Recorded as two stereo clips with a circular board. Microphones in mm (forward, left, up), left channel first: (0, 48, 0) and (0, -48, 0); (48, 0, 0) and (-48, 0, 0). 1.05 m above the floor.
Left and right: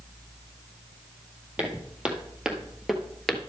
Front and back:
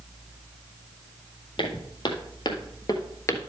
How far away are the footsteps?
About 2.0 m.